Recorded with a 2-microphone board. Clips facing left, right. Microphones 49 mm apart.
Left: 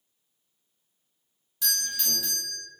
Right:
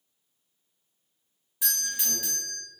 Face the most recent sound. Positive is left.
turn(degrees=-15)  # may be behind; listen again after turning